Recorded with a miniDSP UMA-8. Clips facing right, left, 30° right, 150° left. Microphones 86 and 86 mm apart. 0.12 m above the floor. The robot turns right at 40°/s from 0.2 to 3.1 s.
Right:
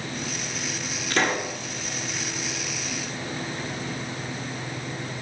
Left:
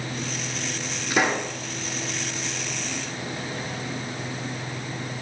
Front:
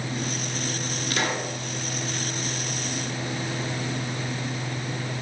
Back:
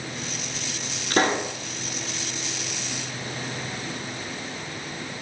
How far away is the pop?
About 1.0 m.